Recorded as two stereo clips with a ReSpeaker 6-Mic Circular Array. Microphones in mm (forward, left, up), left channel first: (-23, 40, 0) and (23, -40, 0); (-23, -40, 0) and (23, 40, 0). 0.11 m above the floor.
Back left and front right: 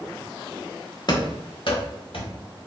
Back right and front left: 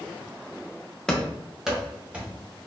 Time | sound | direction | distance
1.1 | running footsteps | 160° left | 1.6 m